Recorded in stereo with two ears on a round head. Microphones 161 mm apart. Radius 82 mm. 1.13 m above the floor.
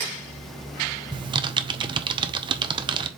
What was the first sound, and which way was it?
Typing on a keyboard, 25° right (ahead or behind).